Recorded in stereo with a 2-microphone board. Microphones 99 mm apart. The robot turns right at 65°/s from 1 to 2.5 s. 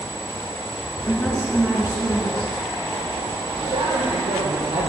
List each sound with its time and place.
1.1 s a woman speaking: 155° left, 2 m; by 2.5 s 110° right, 2 m
3.6 s a man speaking: 80° right, 6 m